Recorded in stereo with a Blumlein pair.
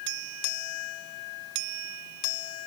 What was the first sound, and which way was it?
Only background noise.